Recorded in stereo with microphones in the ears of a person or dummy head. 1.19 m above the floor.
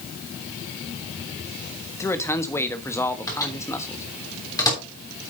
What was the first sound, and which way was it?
A man speaking, 15° left (ahead or behind).